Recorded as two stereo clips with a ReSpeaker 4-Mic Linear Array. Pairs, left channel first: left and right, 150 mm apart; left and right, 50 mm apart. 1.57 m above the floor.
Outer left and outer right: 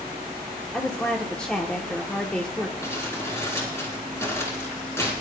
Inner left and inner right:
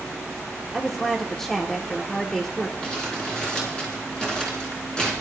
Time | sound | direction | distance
0.7 | a woman speaking | 5° left (ahead or behind) | 1.0 m
2.8 | crumpling | 20° left (ahead or behind) | 3.5 m